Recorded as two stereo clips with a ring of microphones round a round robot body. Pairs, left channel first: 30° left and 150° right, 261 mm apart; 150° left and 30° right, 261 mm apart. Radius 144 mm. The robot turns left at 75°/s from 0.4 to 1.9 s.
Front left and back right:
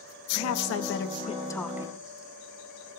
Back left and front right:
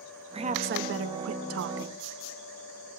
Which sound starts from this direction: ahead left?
A woman speaking, at 0.3 s.